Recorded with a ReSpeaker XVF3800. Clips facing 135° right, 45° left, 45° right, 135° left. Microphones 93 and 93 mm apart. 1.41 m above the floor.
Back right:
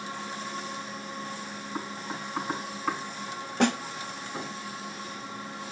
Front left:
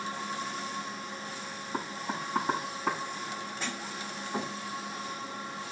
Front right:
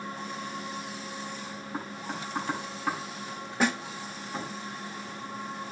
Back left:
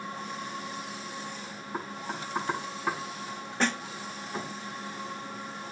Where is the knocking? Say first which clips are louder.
Front left 2 dB, back left 1 dB; 50° left, 8 m.